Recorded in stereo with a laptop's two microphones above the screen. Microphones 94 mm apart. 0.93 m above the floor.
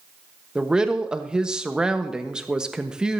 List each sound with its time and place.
0.6 s a woman speaking: 10° right (ahead or behind), 1.1 m